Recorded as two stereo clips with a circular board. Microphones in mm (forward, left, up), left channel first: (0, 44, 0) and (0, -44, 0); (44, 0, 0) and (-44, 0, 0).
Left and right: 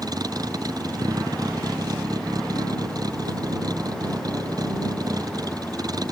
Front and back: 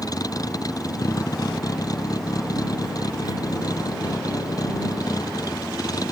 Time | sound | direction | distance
0.0 | a vehicle | 45° right | ?